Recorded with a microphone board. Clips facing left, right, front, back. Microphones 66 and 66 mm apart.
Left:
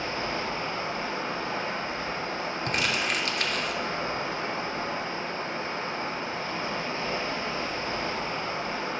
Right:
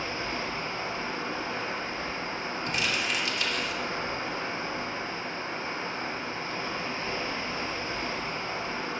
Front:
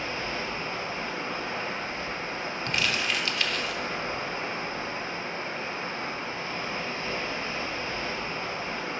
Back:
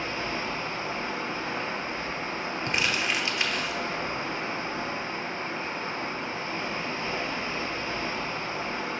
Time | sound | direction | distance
0.0 | running water | 95° left | 1.4 m
2.7 | crumpling | 115° left | 0.7 m